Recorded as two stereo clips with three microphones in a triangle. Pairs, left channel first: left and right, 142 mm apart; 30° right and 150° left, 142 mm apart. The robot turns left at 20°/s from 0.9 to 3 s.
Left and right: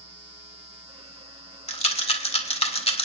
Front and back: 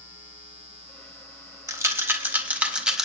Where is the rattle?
95° left, 0.9 m; by 3.0 s 65° left, 0.9 m.